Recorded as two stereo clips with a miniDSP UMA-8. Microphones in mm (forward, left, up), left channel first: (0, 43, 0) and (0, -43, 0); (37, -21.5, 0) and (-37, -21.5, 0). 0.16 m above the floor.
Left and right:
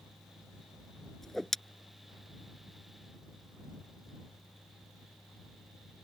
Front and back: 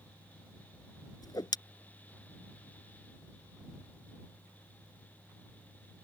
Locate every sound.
1.2 s a whoosh: 5° left